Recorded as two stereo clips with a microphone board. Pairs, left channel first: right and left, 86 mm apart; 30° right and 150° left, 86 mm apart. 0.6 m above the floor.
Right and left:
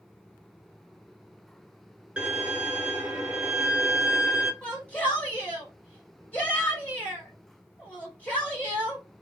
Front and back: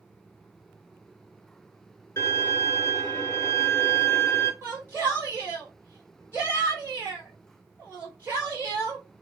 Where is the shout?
160° right, 1.5 m.